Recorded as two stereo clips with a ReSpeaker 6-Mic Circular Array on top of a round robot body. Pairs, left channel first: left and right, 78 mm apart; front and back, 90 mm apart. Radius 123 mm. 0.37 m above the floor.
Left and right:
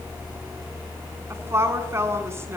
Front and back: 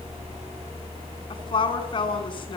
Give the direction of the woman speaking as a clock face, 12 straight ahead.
1 o'clock.